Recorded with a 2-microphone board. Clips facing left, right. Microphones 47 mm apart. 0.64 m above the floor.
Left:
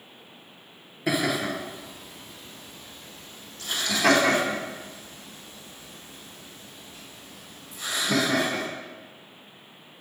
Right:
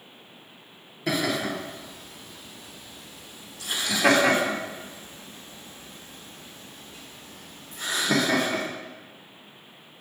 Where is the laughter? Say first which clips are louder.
Left 1 dB; 5° left (ahead or behind), 3 m; by 8.6 s 65° right (ahead or behind), 3 m.